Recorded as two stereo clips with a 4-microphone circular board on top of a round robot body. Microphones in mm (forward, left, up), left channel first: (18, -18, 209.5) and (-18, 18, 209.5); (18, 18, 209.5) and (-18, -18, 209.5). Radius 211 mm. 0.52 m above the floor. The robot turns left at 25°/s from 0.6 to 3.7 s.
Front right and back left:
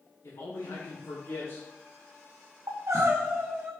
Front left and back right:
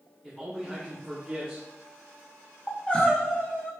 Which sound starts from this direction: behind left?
Crying, at 2.7 s.